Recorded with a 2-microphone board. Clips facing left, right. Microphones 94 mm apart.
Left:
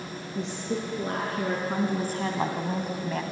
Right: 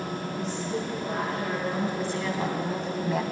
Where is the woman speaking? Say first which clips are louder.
Left 3 dB; 70° left (ahead or behind), 4 m; by 3.2 s 10° right (ahead or behind), 1.6 m.